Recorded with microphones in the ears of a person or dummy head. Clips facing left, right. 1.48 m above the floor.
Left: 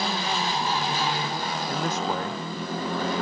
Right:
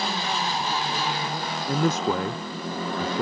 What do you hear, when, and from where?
1.7 s a man speaking: 60° right (ahead or behind)